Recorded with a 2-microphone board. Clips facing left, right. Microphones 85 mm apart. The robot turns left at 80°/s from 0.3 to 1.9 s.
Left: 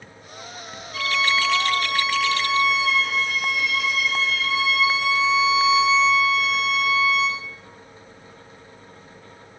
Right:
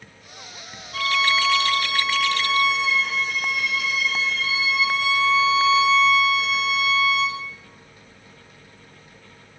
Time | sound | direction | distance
0.9 | a violin | 105° right | 0.5 m